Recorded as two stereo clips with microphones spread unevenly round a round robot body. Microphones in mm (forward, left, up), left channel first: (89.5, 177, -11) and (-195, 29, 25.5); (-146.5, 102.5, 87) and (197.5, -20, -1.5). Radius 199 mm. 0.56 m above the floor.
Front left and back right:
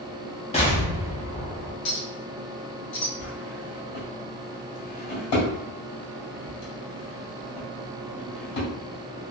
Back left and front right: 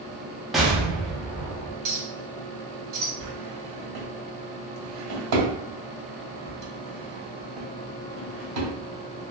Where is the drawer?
20° left, 1.9 m.